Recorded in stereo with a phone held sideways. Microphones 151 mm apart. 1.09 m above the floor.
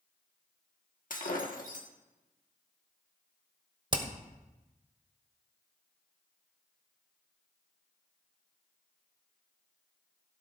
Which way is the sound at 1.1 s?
65° left (ahead or behind).